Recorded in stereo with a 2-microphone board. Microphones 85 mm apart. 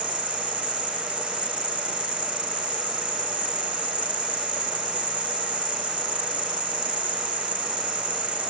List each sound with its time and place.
0.0 s an insect: 65° right (ahead or behind)